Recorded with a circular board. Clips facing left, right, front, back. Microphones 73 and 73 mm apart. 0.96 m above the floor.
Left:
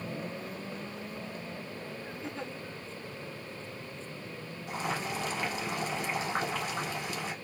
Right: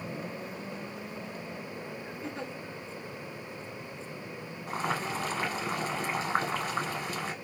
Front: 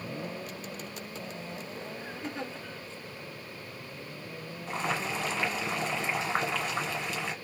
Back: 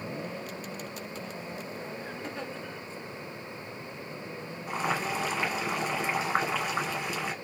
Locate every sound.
2.2 s a giggle: 65° right, 1.5 m
4.7 s boiling: 100° right, 1.2 m